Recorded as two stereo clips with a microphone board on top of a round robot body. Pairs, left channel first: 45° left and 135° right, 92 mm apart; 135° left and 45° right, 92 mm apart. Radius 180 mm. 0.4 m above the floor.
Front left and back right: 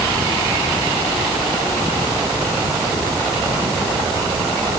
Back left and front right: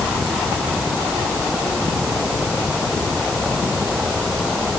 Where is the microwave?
I don't hear a microwave.